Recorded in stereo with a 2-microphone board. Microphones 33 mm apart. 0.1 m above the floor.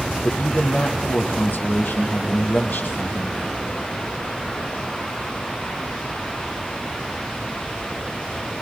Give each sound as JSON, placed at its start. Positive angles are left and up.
{"t": 0.2, "sound": "a man speaking", "side_deg": 65, "distance_m": 3.0}